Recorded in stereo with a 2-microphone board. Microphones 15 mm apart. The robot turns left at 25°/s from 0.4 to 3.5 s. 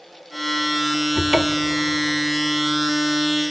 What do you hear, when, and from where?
1.1 s a cupboard door: 40° right (ahead or behind), 0.8 m